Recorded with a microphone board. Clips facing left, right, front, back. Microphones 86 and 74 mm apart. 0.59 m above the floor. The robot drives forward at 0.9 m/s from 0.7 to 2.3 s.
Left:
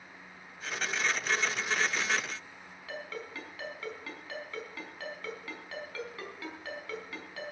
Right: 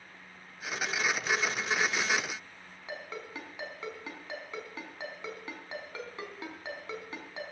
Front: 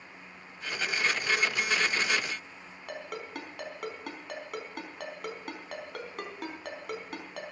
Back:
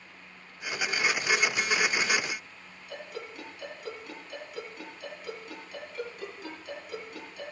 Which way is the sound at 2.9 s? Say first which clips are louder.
Even, front 2 dB; 20° right.